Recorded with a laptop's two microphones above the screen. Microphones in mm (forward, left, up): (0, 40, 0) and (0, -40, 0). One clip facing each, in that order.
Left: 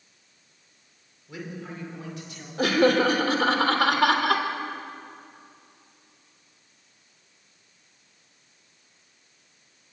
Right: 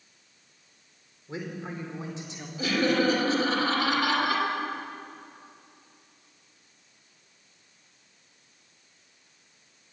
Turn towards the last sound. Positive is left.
turn(degrees=65)  # may be behind; listen again after turning